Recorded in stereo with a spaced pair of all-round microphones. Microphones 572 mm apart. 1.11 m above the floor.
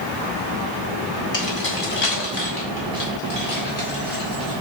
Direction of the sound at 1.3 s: 75° left (ahead or behind).